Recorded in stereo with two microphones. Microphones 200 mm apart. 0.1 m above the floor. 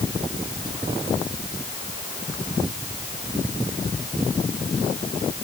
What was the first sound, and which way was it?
Only background noise.